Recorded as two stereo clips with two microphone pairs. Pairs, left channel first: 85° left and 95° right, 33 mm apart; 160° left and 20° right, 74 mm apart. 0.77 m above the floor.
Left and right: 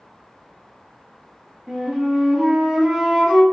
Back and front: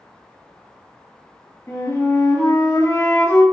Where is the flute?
170° right, 1.4 m.